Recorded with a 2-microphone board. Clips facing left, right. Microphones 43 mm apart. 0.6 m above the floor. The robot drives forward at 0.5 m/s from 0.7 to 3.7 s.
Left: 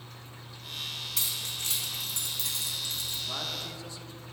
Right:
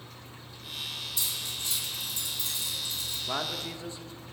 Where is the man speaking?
35° right (ahead or behind), 1.1 m; by 4.3 s 30° right (ahead or behind), 1.2 m.